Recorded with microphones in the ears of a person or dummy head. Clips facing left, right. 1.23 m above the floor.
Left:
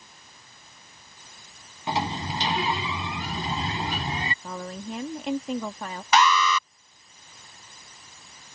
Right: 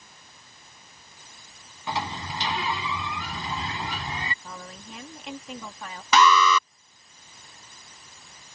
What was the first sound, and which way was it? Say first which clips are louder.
A sliding door: left 3 dB; 20° left (ahead or behind).